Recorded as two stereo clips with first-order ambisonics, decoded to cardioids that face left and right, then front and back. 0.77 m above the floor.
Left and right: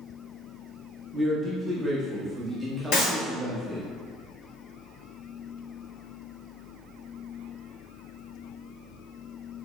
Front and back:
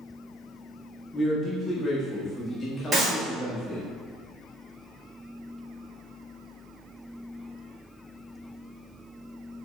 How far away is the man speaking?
About 0.6 m.